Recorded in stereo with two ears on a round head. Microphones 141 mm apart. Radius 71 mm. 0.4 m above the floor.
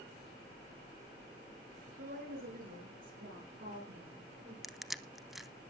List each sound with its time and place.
2.0 s a woman speaking: 60° right (ahead or behind), 7.5 m; by 4.5 s 70° right (ahead or behind), 10.5 m
4.6 s crushing: centre (ahead or behind), 0.6 m